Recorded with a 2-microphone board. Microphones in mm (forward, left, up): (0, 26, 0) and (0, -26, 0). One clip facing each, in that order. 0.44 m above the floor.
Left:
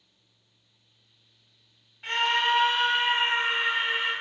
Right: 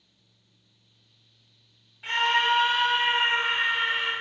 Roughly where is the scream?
Centre.